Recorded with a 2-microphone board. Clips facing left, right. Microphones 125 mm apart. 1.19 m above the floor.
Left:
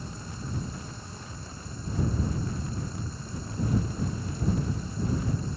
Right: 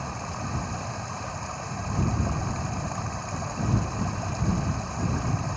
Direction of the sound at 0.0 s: 65° right (ahead or behind).